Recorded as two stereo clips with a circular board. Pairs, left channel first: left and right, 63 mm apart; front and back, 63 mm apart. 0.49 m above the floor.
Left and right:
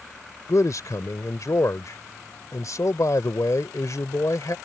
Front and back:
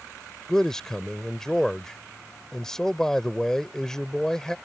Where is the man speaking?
80° left.